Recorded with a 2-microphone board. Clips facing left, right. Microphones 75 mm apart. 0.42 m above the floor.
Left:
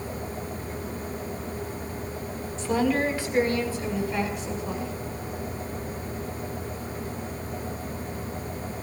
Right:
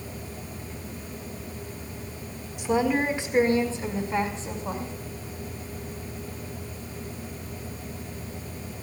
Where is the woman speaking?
15° right (ahead or behind), 3.5 m; by 4.9 s 35° right (ahead or behind), 5 m.